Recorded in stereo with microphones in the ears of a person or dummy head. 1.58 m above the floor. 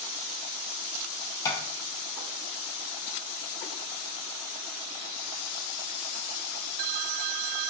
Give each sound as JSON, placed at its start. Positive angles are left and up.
{"t": 1.4, "sound": "tapping", "side_deg": 20, "distance_m": 0.5}